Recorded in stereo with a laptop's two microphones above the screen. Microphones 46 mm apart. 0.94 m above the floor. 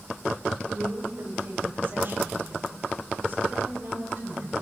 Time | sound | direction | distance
0.7 | a woman speaking | 45° right (ahead or behind) | 5 m